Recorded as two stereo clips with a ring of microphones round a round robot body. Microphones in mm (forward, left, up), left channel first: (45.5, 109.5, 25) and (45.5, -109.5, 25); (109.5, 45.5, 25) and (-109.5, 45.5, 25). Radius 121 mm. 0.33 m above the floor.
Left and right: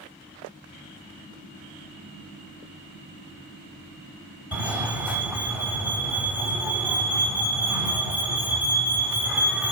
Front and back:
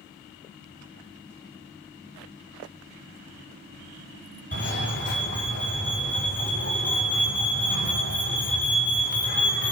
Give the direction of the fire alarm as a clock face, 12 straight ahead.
12 o'clock.